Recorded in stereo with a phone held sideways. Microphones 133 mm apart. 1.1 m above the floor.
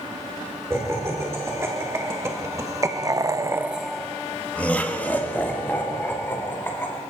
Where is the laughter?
20° right (ahead or behind), 4.5 m; by 7.0 s 15° left (ahead or behind), 5.5 m.